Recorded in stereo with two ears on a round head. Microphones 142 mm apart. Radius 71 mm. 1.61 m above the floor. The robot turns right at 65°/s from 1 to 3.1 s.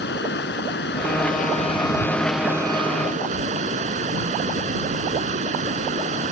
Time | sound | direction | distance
0.0 | running water | 95° left | ?